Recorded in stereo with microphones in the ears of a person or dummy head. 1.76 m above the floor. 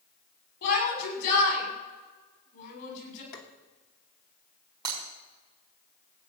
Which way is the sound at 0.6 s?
65° left (ahead or behind).